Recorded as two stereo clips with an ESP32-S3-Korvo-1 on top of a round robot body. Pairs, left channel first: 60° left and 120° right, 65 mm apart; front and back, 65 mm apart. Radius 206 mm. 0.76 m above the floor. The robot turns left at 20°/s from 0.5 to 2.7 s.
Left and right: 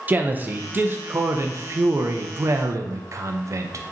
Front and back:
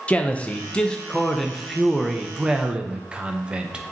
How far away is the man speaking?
About 0.6 m.